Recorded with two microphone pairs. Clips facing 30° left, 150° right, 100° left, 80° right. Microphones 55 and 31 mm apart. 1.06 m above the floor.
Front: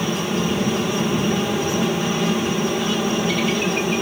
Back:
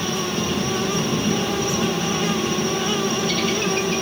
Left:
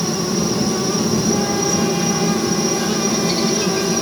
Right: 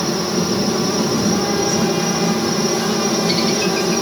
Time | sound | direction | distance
0.0 | a helicopter | 35° right | ?